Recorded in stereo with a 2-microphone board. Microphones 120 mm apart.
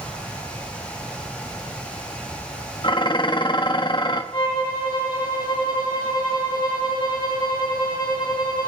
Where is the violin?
40° left (ahead or behind), 3.5 m.